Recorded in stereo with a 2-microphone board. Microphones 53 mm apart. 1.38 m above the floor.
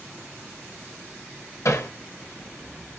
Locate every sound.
1.6 s hammering: 75° left (ahead or behind), 0.7 m